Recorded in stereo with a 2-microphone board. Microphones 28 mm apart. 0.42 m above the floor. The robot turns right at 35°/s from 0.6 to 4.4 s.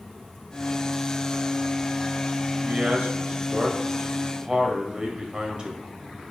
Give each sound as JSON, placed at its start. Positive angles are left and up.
{"t": 2.6, "sound": "a man speaking", "azimuth_deg": -95, "distance_m": 1.6}